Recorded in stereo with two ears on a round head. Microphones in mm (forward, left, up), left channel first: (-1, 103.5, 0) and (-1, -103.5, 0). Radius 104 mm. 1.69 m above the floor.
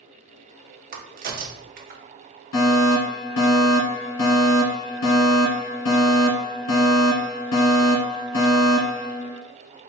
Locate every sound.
0.9 s a crack: 40° right (ahead or behind), 0.7 m
2.5 s a fire alarm: 70° left (ahead or behind), 1.7 m